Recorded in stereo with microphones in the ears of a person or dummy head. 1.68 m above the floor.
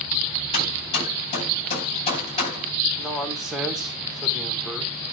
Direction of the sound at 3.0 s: 5° right (ahead or behind).